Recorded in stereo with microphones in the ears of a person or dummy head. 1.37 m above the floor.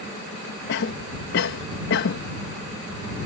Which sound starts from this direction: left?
A cough, at 0.7 s.